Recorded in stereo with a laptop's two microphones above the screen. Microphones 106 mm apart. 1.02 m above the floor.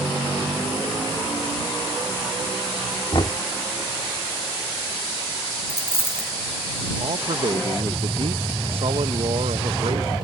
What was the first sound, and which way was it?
Knocking, 50° left (ahead or behind).